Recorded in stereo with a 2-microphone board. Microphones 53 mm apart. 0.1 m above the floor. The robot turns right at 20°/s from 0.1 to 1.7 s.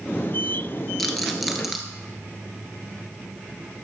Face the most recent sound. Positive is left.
turn(degrees=-5)  # may be behind; listen again after turning